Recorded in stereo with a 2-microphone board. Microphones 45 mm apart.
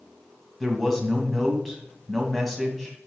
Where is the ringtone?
No ringtone in this recording.